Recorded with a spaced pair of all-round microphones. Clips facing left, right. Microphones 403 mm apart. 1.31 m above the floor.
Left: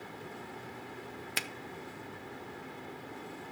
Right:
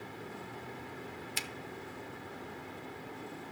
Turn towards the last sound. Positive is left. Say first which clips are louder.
# left 2 dB
turn(degrees=75)  # may be behind; listen again after turning